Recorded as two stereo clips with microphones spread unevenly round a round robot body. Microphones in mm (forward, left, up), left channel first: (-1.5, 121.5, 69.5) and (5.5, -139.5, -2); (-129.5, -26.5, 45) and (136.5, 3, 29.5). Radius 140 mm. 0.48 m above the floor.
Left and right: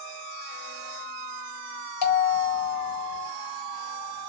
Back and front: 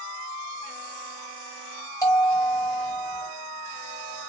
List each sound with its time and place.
2.0 s a bell: 105° left, 1.2 m